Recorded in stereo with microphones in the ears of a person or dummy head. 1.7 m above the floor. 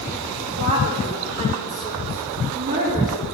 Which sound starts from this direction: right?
A woman speaking, at 0.6 s.